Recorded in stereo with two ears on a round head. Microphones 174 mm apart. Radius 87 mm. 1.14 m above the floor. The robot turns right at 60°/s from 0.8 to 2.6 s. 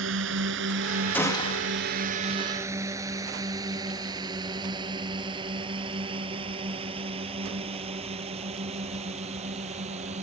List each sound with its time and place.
0.0 s a drone: 70° right (ahead or behind); by 10.2 s 35° right (ahead or behind)
1.1 s a gunshot: 10° left; by 1.7 s 45° left